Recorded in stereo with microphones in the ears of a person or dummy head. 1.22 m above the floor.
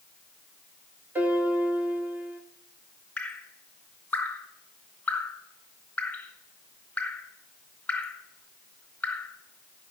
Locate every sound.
1.1 s a piano: 15° right (ahead or behind), 1.1 m
3.2 s dripping: 5° left (ahead or behind), 1.0 m